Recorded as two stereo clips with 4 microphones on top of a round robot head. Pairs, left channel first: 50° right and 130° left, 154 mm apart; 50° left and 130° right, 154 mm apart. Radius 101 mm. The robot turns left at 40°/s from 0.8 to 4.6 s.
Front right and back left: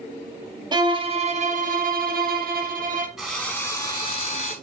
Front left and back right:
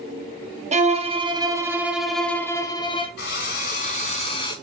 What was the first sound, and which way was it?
A violin, 170° right.